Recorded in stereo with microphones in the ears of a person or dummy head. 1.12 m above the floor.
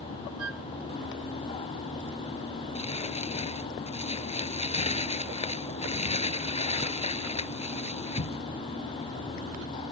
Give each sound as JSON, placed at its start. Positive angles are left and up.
{"t": 0.4, "sound": "a flute", "side_deg": -80}
{"t": 2.8, "sound": "crumpling", "side_deg": 35}